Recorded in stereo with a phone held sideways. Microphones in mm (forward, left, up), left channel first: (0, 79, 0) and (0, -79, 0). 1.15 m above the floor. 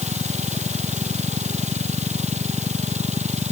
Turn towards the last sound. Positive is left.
turn(degrees=-45)  # may be behind; listen again after turning